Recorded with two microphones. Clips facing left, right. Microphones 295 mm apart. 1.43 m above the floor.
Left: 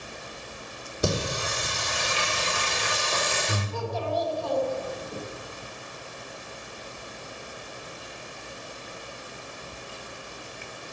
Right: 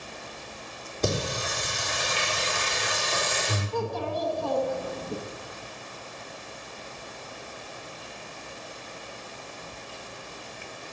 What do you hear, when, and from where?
1.0 s singing: 10° left (ahead or behind), 3.5 m
3.7 s a child speaking: 60° right (ahead or behind), 1.1 m